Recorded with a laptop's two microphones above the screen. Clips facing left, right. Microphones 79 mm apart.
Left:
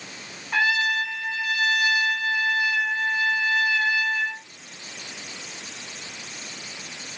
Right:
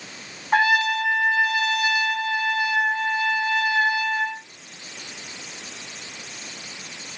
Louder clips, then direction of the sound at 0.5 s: Right 4 dB; 40° right (ahead or behind).